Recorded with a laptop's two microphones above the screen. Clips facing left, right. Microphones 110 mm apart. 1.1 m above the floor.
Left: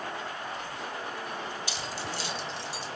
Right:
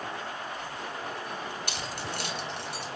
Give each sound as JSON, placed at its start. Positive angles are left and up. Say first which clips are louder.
{"t": 1.7, "sound": "keys jangling", "louder": "even", "side_deg": -55, "distance_m": 1.0}